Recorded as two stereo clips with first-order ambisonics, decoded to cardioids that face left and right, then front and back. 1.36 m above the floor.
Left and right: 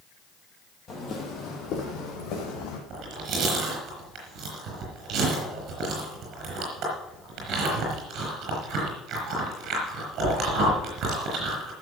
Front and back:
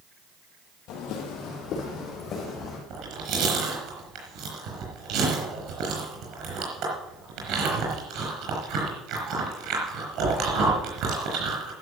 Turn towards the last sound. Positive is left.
turn(degrees=-140)